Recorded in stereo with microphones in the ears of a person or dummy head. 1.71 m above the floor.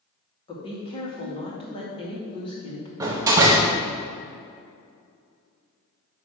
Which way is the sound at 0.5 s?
30° left (ahead or behind).